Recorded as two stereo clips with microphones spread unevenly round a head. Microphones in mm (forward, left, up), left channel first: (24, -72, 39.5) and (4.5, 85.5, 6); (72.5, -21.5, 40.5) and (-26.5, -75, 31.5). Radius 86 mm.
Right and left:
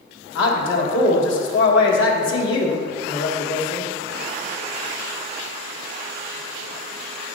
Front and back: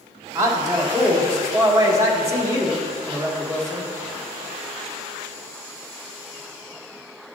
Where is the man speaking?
90° right, 1.7 m.